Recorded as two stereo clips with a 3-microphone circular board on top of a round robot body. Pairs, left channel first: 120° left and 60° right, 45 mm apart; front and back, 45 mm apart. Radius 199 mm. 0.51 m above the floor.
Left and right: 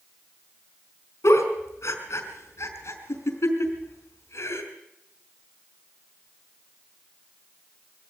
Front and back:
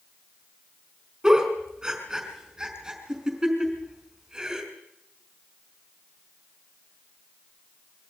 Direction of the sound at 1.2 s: 100° left.